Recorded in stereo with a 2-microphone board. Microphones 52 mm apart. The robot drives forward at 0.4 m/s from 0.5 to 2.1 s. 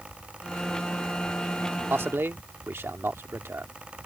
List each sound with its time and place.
1.9 s a man speaking: 45° right (ahead or behind); by 3.7 s 50° right (ahead or behind)